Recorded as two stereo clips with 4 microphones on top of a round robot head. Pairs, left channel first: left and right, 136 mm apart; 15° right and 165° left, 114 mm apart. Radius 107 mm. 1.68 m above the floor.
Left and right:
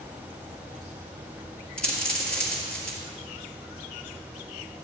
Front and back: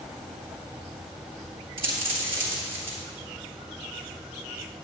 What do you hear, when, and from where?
1.8 s a dropped coin: 170° left, 2.0 m